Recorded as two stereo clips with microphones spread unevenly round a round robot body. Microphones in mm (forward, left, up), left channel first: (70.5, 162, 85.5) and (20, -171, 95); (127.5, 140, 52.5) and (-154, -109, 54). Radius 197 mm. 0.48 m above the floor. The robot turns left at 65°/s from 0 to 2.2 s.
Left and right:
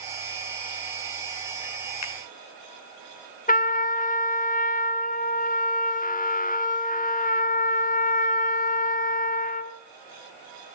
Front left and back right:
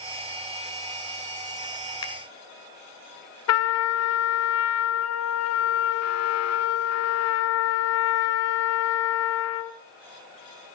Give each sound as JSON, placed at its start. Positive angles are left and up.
{"t": 2.0, "sound": "a finger snap", "azimuth_deg": 120, "distance_m": 1.6}
{"t": 3.5, "sound": "a trumpet", "azimuth_deg": 30, "distance_m": 1.3}